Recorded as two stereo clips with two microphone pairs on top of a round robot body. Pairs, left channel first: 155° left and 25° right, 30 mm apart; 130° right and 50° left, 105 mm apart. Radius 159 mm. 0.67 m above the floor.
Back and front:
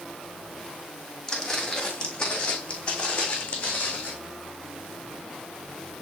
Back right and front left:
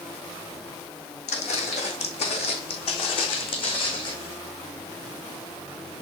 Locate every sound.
1.3 s footsteps: 135° right, 2.5 m; by 4.1 s 170° right, 3.5 m